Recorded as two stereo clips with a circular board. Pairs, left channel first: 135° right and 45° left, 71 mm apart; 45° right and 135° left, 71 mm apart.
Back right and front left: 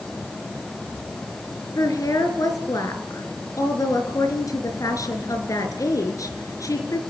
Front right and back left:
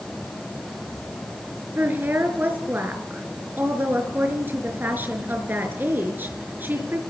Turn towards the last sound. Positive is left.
turn(degrees=-165)